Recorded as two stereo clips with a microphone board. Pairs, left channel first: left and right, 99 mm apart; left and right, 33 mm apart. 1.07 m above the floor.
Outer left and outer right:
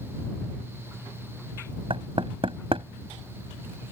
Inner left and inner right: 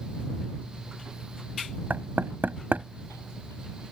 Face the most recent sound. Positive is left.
turn(degrees=-65)  # may be behind; listen again after turning